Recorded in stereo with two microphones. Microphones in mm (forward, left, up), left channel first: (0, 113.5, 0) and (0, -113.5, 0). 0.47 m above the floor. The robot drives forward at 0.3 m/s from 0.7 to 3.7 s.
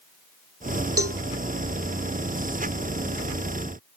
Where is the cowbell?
80° right.